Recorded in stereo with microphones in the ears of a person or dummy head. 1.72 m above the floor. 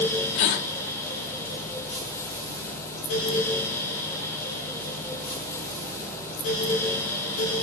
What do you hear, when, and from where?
0.3 s a gasp: 50° left (ahead or behind), 1.1 m